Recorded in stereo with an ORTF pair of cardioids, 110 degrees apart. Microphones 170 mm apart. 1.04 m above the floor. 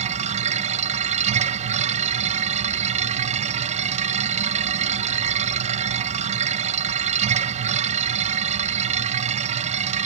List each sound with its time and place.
0.0 s a machine running: 45° right